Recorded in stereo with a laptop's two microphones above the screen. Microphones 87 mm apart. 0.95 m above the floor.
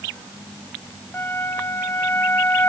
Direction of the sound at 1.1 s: 25° left (ahead or behind).